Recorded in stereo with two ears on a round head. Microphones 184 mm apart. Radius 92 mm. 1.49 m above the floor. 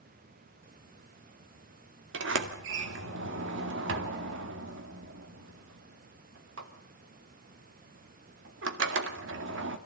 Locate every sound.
2.1 s a sliding door: 60° right (ahead or behind), 2.0 m